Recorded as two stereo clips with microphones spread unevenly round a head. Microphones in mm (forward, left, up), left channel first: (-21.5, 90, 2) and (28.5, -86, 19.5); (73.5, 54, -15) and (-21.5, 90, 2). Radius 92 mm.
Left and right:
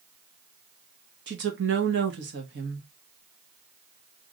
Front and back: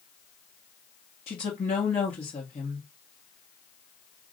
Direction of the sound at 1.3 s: 50° right.